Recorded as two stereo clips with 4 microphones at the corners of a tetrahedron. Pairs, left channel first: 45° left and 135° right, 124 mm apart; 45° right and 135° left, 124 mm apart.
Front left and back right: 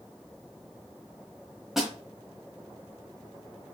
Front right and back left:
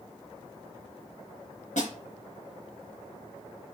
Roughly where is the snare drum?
Ahead right.